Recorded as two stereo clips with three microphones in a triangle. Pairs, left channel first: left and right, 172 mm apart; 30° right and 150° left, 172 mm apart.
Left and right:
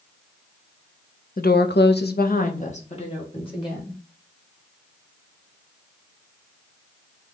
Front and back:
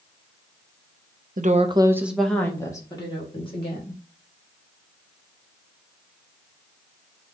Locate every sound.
1.4 s a woman speaking: 120° left, 0.6 m; by 4.0 s 25° left, 2 m